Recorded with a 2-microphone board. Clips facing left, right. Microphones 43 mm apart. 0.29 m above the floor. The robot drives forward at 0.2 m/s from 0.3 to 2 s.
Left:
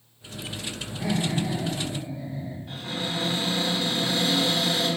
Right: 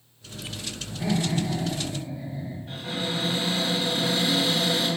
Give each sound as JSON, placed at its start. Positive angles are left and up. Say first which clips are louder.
{"t": 0.9, "sound": "laughter", "louder": "right 1 dB", "side_deg": 0, "distance_m": 1.2}
{"t": 2.7, "sound": "a cupboard door", "louder": "right 1 dB", "side_deg": -5, "distance_m": 1.5}